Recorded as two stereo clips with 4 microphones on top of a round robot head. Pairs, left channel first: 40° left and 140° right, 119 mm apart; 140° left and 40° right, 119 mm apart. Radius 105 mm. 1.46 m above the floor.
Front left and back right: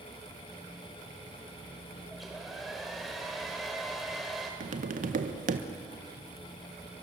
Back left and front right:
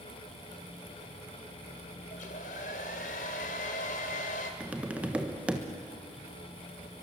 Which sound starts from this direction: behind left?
A hair dryer, at 2.1 s.